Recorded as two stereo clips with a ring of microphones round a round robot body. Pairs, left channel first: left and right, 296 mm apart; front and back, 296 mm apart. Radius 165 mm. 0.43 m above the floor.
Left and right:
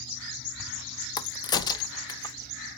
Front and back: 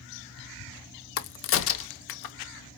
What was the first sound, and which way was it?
A crack, 20° left.